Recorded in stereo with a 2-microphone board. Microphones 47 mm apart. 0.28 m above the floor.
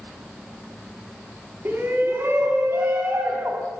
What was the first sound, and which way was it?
A shout, 55° right (ahead or behind).